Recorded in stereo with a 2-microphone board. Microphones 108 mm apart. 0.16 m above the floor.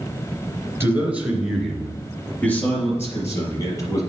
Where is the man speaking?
25° right (ahead or behind), 2.5 m; by 4.0 s 30° left (ahead or behind), 4.5 m.